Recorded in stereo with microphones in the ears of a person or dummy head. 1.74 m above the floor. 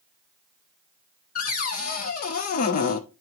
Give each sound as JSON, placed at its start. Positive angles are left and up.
{"t": 1.4, "sound": "a cupboard door", "side_deg": 50, "distance_m": 0.7}